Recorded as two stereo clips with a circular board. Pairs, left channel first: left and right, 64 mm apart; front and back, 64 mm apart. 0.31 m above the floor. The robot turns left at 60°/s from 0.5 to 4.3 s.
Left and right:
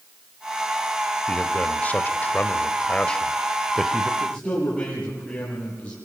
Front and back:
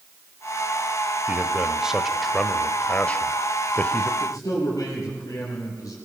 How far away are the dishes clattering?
No dishes clattering in this recording.